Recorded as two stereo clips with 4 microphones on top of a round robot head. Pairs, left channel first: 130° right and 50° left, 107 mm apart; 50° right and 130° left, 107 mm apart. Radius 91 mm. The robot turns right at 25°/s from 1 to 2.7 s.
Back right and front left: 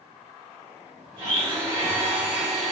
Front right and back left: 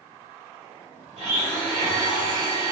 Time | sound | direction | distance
1.2 | a blender | 100° left | 1.7 m